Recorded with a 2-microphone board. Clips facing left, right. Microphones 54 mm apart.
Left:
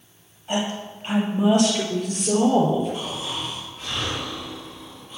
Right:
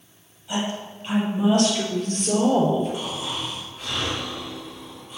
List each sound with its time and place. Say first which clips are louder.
0.5 s a woman speaking: left 2 dB; 40° left (ahead or behind), 3.5 m; by 2.9 s 5° right (ahead or behind), 3.5 m
2.9 s snoring: even; 10° right (ahead or behind), 4 m